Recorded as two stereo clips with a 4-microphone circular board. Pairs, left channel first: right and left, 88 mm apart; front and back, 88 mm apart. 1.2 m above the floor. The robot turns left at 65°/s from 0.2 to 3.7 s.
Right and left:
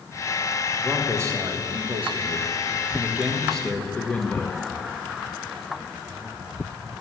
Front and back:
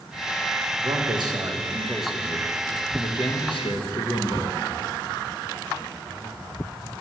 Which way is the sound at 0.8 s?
175° left.